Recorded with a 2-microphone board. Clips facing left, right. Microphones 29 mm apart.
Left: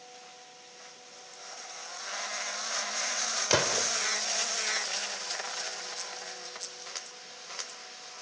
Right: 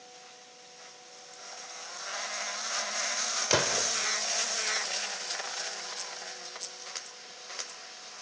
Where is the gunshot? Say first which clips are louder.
Even; 5° left (ahead or behind), 1.0 m.